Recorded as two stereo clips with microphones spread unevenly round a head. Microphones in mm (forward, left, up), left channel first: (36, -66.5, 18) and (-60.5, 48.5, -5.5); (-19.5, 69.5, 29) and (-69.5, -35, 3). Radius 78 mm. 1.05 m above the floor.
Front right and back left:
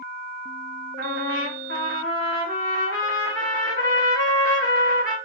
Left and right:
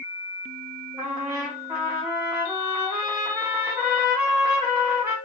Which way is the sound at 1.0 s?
40° right.